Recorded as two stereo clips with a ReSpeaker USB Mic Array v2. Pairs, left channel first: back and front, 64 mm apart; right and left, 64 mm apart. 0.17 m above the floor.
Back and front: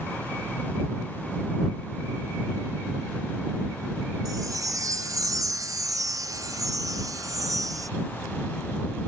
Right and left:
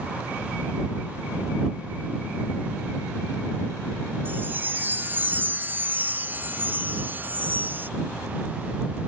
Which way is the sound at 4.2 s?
30° left.